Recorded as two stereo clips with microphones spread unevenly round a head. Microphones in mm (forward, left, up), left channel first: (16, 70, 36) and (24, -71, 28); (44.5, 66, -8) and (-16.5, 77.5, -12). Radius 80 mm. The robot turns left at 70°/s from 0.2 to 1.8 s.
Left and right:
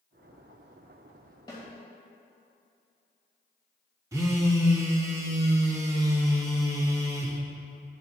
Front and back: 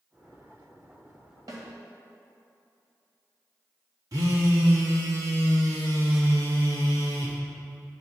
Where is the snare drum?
155° left, 2.5 m; by 1.6 s 145° left, 2.5 m.